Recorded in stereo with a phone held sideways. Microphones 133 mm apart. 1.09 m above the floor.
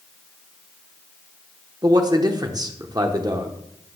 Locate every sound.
1.8 s a man speaking: 30° right (ahead or behind), 0.8 m